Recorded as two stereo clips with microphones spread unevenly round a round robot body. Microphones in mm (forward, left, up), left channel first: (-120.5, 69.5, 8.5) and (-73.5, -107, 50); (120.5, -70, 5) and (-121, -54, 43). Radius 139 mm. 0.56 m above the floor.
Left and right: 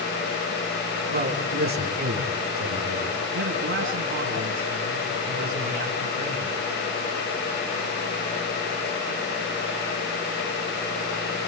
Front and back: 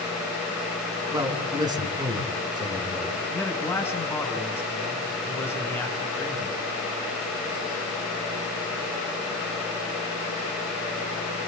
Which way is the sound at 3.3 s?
85° right.